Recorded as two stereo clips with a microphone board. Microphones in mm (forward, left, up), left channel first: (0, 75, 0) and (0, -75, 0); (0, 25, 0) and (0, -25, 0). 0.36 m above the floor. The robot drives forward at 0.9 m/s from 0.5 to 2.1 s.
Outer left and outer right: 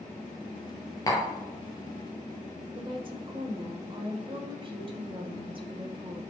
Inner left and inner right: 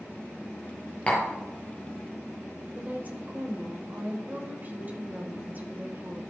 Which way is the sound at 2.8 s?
35° right (ahead or behind).